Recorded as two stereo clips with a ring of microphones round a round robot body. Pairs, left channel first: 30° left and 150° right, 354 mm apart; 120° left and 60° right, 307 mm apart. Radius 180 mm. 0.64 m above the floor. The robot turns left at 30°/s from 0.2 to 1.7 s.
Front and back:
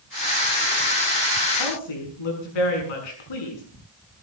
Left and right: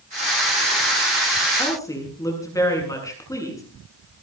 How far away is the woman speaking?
About 7.5 m.